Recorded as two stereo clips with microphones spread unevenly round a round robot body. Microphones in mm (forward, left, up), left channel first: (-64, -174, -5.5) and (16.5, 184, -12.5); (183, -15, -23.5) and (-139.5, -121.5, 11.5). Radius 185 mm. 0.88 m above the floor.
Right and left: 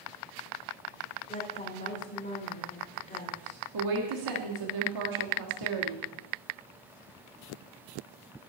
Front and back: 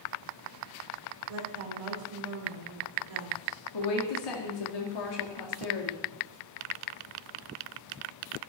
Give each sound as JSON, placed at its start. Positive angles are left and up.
{"t": 1.3, "sound": "a woman speaking", "azimuth_deg": -175, "distance_m": 3.0}
{"t": 3.7, "sound": "a woman speaking", "azimuth_deg": 40, "distance_m": 1.8}